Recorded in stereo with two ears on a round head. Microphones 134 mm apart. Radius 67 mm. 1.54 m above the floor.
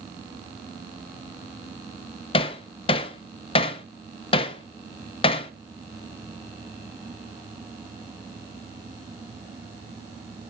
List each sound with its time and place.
2.3 s hammering: 40° left (ahead or behind), 0.6 m